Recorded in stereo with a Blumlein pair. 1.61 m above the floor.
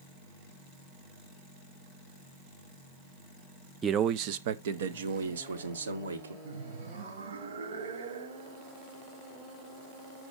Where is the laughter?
65° right, 1.1 m.